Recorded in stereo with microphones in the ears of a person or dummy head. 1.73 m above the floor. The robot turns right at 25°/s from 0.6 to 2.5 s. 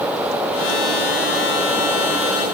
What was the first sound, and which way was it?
Only background noise.